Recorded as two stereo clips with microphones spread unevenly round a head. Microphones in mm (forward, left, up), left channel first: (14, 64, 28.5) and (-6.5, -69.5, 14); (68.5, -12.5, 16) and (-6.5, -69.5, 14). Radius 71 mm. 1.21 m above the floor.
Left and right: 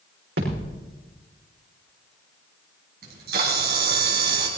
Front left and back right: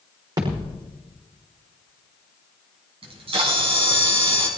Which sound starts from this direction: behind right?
A camera shutter, at 3.0 s.